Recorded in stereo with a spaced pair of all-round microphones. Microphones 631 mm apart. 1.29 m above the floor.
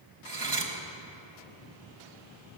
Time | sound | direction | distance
0.2 | cutlery clinking | 40° right (ahead or behind) | 0.8 m